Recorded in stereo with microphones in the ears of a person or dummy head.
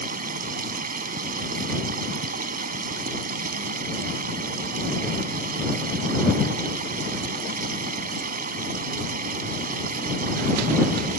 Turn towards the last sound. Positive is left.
turn(degrees=-45)  # may be behind; listen again after turning